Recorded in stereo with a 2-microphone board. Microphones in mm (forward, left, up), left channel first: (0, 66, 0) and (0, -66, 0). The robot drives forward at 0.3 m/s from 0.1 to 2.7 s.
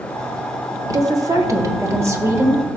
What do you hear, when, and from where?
0.9 s a woman speaking: 25° right (ahead or behind), 0.8 m; by 2.6 s 20° right (ahead or behind), 1.1 m